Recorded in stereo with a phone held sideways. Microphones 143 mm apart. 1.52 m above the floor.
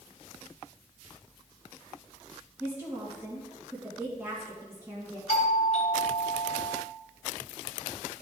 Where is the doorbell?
50° left (ahead or behind), 1.3 m.